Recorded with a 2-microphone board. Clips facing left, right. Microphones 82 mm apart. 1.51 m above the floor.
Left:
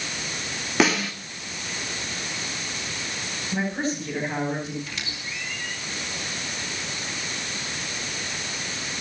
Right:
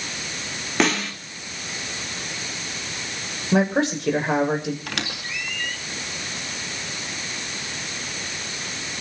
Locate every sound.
0.8 s a snare drum: centre (ahead or behind), 3.5 m
3.5 s a man speaking: 85° right, 7 m
4.9 s a squeak: 70° right (ahead or behind), 2 m